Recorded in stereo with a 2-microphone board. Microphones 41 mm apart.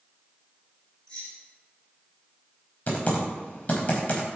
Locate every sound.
1.1 s keys jangling: 15° left (ahead or behind), 3.5 m
2.9 s typing on a keyboard: 30° left (ahead or behind), 3 m